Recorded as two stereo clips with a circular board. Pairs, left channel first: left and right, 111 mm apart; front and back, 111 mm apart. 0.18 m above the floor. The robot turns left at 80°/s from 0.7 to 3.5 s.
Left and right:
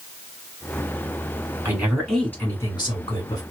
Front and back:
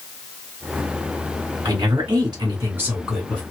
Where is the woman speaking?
150° right, 2.0 m; by 3.4 s 70° left, 2.0 m.